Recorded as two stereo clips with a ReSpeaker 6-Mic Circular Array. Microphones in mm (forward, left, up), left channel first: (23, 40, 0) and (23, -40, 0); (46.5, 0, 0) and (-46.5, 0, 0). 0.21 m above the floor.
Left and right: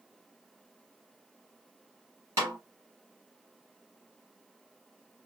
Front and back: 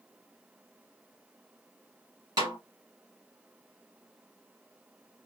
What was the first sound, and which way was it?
A snare drum, 140° right.